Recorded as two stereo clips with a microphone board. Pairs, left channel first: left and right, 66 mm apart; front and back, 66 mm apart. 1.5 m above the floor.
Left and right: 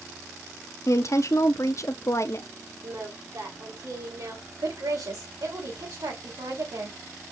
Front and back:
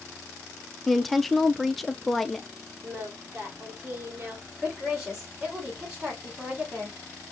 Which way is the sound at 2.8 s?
120° right.